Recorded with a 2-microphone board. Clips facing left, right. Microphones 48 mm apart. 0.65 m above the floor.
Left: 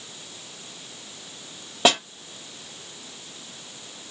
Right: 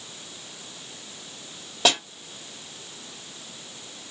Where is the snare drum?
20° left (ahead or behind), 1.4 m.